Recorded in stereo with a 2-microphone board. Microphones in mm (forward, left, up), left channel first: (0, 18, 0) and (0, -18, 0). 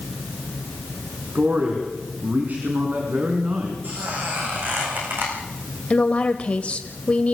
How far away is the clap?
I don't hear a clap.